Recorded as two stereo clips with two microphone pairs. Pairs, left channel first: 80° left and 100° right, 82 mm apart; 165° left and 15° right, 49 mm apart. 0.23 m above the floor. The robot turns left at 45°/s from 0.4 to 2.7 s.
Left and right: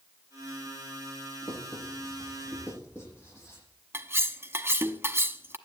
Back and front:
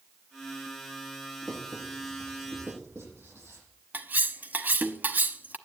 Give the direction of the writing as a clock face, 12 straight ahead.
9 o'clock.